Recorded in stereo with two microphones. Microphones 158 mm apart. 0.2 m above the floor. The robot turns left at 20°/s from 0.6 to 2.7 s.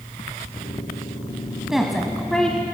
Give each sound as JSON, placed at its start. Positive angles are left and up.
{"t": 1.7, "sound": "a woman speaking", "side_deg": 0, "distance_m": 1.1}